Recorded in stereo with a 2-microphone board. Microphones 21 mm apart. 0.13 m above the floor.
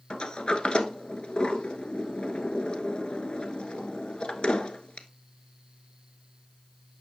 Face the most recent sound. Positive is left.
turn(degrees=55)  # may be behind; listen again after turning